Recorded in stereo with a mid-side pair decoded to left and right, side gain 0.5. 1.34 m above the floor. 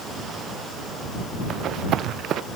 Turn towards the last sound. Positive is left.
turn(degrees=-65)